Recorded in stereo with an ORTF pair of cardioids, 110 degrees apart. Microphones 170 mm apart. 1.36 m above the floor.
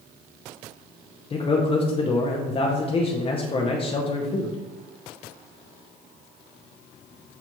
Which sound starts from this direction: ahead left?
A man speaking, at 1.3 s.